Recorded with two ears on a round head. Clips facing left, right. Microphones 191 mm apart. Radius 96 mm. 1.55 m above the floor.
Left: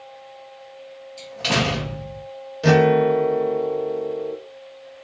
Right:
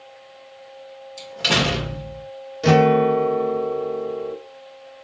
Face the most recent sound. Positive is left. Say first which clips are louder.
# even
turn(degrees=0)  # may be behind; listen again after turning